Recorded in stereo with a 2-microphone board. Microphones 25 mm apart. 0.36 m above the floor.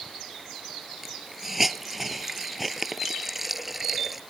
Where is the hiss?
10° right (ahead or behind).